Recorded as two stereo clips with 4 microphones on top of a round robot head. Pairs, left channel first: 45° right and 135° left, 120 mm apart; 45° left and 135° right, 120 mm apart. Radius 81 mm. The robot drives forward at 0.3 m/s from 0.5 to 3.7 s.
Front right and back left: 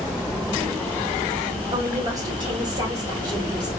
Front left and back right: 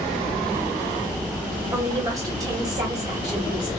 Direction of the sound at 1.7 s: 175° left.